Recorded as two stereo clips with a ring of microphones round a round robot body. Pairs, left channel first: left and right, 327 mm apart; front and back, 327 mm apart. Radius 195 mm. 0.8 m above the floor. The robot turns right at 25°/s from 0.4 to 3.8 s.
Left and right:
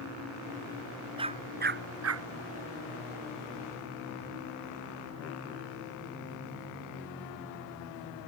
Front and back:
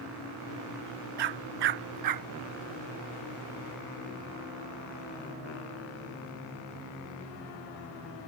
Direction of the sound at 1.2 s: 165° right.